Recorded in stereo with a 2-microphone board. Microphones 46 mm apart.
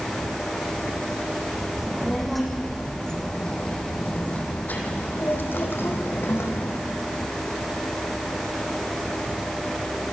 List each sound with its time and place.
1.8 s a child speaking: 5° right (ahead or behind), 5.5 m; by 6.8 s 70° left (ahead or behind), 5.5 m